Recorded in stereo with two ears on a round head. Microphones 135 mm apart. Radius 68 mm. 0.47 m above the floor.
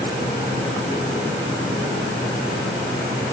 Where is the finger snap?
I don't hear a finger snap.